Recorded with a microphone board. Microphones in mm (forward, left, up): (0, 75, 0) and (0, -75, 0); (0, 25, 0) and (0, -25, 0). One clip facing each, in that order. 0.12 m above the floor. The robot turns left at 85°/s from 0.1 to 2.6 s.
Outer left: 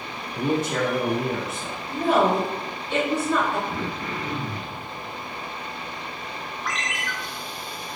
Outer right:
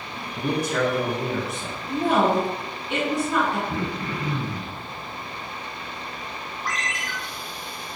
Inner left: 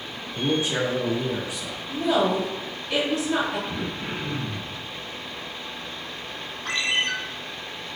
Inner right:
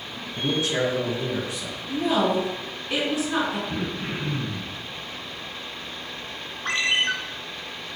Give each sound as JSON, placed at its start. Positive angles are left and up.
{"t": 0.3, "sound": "a man speaking", "side_deg": 20, "distance_m": 1.0}
{"t": 1.9, "sound": "a woman speaking", "side_deg": -25, "distance_m": 1.7}
{"t": 3.7, "sound": "throat clearing", "side_deg": -20, "distance_m": 1.6}
{"t": 6.7, "sound": "a ringtone", "side_deg": -35, "distance_m": 0.5}